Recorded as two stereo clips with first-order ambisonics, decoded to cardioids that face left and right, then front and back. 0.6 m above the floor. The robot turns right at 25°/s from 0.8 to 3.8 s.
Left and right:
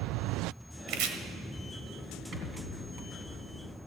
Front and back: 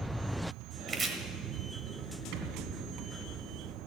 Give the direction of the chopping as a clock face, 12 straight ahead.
4 o'clock.